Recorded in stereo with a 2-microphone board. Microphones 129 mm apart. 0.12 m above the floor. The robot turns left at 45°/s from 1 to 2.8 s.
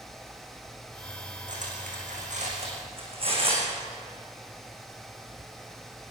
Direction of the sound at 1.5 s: 70° right (ahead or behind).